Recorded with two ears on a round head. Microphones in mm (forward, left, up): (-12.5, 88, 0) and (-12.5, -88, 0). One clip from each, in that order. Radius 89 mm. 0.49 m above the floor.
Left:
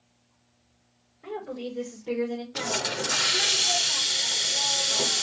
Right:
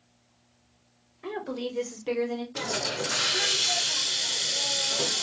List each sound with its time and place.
1.2 s a woman speaking: 60° right (ahead or behind), 2 m; by 2.5 s 10° right (ahead or behind), 1.2 m
2.5 s a hiss: 20° left (ahead or behind), 0.6 m